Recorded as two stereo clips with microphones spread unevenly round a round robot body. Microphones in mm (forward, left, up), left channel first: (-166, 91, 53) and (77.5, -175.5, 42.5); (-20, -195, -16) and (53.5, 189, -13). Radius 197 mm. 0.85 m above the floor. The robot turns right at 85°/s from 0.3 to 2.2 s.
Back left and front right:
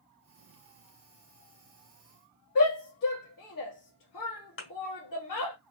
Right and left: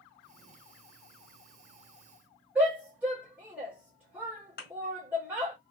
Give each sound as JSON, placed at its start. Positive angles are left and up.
{"t": 2.5, "sound": "a shout", "azimuth_deg": 165, "distance_m": 1.8}
{"t": 4.6, "sound": "a thud", "azimuth_deg": -170, "distance_m": 1.6}